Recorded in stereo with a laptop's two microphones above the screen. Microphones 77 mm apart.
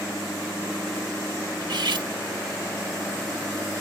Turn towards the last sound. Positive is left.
turn(degrees=-70)  # may be behind; listen again after turning